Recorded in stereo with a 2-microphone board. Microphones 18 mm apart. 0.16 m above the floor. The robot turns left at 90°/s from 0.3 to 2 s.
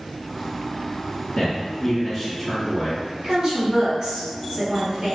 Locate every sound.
1.4 s a man speaking: 80° left, 1.5 m; by 3.0 s 20° left, 1.5 m
3.2 s a woman speaking: 50° right (ahead or behind), 1.9 m